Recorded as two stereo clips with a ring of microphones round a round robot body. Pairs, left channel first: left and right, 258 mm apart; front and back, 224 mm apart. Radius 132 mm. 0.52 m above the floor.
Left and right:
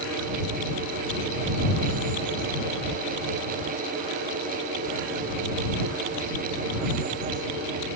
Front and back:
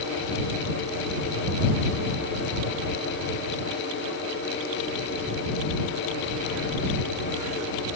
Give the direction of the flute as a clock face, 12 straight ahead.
I don't hear a flute.